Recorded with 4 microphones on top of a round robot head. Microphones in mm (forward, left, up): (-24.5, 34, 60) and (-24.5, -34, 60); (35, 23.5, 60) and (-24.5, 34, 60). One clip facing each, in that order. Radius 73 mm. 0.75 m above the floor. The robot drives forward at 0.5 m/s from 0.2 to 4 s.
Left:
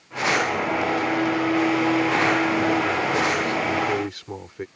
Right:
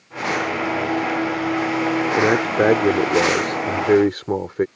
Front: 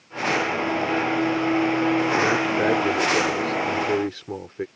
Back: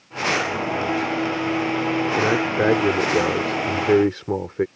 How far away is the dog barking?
No dog barking in this recording.